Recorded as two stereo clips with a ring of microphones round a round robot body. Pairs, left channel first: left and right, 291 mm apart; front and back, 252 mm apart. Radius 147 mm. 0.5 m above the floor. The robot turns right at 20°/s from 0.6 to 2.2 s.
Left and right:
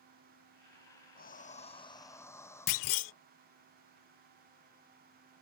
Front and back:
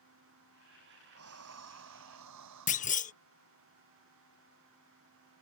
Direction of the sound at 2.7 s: 65° left.